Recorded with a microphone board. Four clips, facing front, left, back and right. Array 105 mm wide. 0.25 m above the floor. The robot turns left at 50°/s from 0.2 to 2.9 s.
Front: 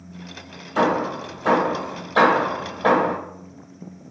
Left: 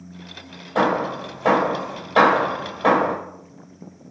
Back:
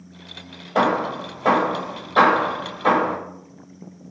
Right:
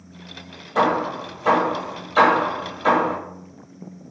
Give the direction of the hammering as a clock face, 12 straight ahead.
7 o'clock.